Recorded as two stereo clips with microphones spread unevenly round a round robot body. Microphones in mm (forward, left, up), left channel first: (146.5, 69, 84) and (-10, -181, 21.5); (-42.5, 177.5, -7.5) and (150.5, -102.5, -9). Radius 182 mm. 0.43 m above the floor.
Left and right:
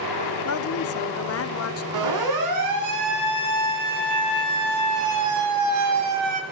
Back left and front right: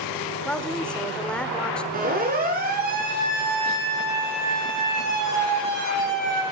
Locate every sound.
0.5 s a woman speaking: 40° left, 1.3 m
1.9 s a siren: 125° right, 6.5 m; by 6.4 s 115° right, 4 m